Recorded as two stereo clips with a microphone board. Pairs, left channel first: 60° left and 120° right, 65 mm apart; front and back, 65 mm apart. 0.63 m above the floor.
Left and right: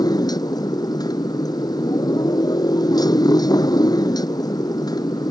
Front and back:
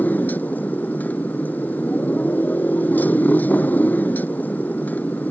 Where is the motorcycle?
65° left.